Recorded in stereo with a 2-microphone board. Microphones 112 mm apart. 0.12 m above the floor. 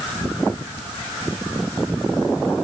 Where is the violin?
No violin in this recording.